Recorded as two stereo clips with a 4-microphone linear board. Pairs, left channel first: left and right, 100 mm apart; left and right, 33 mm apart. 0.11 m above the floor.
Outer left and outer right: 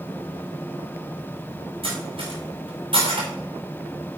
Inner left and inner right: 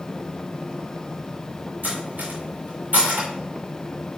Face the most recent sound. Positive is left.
turn(degrees=-65)  # may be behind; listen again after turning